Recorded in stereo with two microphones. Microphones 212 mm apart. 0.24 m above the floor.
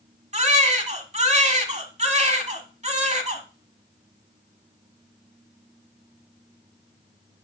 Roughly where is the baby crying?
Right.